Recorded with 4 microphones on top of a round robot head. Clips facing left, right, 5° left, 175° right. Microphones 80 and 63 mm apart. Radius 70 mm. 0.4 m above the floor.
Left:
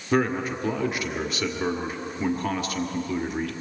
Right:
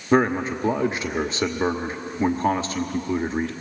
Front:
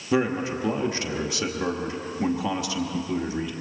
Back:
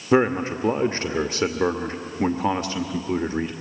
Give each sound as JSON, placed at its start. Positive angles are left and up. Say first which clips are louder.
{"t": 0.1, "sound": "a man speaking", "louder": "right 4 dB, back 5 dB", "azimuth_deg": -140, "distance_m": 1.1}